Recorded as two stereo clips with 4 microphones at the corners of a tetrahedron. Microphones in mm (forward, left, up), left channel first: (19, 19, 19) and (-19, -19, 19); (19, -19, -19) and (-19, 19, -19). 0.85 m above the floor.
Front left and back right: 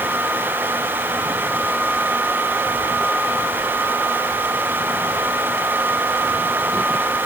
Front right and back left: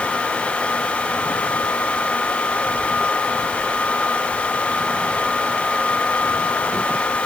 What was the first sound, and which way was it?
Only background noise.